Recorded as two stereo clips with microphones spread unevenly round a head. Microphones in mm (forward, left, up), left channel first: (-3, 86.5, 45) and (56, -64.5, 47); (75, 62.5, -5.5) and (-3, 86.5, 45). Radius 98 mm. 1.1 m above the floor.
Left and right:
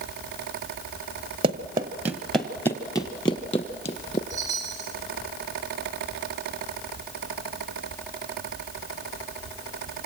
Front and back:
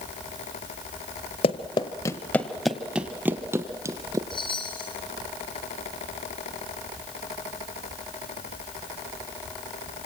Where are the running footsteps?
50° right, 1.2 m; by 4.2 s 170° left, 2 m.